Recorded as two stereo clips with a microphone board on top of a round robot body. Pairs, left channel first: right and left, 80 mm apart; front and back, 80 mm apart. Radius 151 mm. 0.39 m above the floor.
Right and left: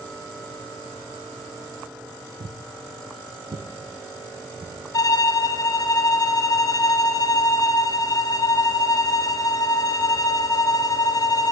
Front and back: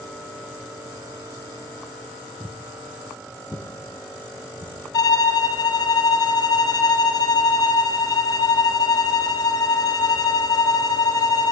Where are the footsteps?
105° left, 1.0 m; by 4.8 s 45° left, 2.5 m.